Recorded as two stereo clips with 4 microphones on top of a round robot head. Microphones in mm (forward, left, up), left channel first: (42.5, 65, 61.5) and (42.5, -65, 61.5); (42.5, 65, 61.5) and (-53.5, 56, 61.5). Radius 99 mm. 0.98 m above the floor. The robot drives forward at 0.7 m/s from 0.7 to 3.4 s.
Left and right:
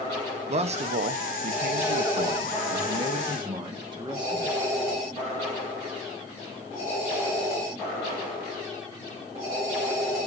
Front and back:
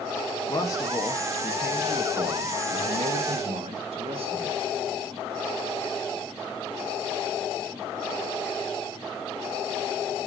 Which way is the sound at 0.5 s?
55° right.